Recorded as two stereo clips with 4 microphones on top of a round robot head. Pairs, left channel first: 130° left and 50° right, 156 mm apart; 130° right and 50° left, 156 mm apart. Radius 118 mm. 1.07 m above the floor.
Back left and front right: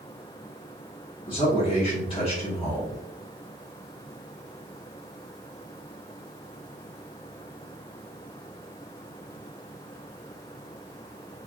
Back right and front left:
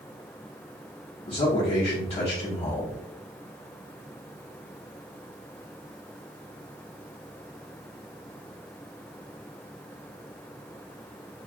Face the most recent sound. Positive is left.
turn(degrees=-175)